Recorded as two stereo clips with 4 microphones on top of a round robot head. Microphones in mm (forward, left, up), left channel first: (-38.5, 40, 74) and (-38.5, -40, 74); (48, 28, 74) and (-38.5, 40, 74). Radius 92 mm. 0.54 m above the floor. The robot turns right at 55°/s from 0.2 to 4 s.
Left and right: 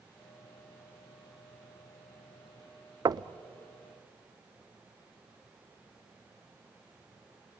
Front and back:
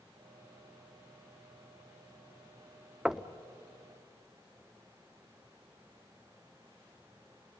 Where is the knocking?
110° right, 0.5 m; by 3.3 s 95° right, 0.5 m.